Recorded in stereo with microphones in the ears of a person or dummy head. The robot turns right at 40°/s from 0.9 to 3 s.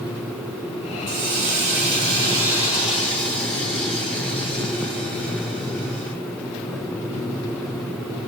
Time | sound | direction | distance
1.1 | a hiss | 75° right | 2.5 m